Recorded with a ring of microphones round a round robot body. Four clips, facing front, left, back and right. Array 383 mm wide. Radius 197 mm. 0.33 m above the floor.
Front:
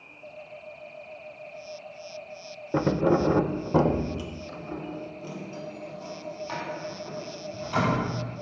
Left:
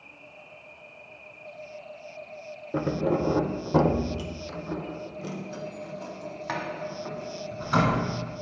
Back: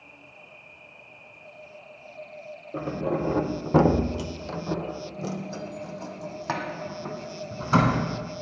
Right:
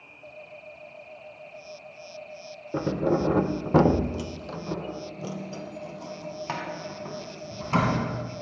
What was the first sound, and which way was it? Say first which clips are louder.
Keys jangling: right 1 dB, front 6 dB; straight ahead.